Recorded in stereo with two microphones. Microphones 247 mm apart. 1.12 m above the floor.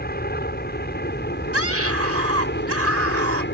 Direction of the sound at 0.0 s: 40° left (ahead or behind).